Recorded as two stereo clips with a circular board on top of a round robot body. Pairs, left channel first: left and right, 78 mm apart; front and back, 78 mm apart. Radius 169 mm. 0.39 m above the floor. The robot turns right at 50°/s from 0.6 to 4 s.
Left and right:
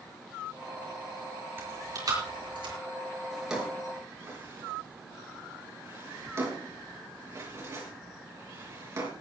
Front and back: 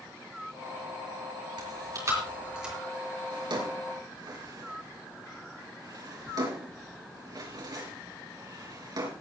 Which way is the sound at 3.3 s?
175° left.